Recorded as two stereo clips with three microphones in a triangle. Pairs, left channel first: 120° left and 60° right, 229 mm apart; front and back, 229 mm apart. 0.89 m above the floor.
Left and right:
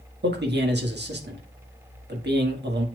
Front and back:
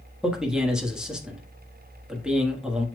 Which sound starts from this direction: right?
A man speaking, at 0.2 s.